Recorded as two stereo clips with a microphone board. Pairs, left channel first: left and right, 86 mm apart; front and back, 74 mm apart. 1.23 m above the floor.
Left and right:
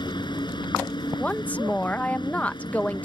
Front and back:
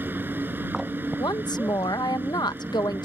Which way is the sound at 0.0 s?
120° left.